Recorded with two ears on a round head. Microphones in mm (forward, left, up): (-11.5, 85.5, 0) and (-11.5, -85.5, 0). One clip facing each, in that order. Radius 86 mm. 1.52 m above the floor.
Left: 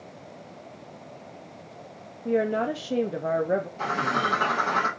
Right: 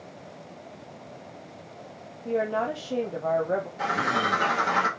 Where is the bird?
10° right (ahead or behind), 1.6 m.